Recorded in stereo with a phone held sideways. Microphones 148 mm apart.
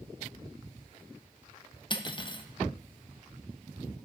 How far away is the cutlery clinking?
About 0.5 m.